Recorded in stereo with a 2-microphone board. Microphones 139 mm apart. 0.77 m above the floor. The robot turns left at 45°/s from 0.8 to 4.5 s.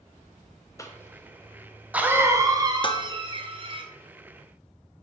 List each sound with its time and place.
0.8 s a cough: 20° left (ahead or behind), 0.6 m; by 3.8 s 40° right (ahead or behind), 0.6 m
2.8 s dishes clattering: 35° left (ahead or behind), 0.6 m; by 3.1 s 45° left (ahead or behind), 0.6 m